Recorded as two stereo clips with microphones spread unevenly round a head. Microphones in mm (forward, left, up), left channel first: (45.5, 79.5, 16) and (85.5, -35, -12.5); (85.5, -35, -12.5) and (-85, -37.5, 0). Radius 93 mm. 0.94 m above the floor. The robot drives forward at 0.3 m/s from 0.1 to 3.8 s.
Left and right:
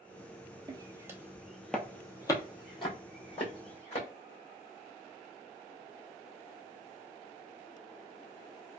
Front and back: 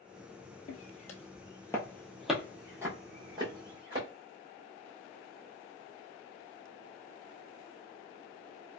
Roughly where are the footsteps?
Ahead.